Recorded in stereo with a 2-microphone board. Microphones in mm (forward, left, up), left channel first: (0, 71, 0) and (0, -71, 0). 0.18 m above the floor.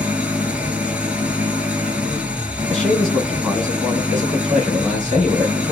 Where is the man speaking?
Centre (ahead or behind), 2 m.